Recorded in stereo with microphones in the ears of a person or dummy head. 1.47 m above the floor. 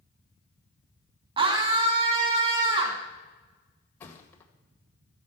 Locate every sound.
1.4 s a scream: 40° right (ahead or behind), 1.4 m
4.0 s a thud: 5° left (ahead or behind), 1.9 m